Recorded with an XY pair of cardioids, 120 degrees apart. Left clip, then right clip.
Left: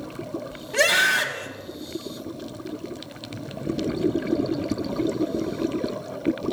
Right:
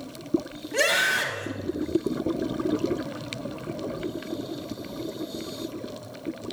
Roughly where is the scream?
Ahead left.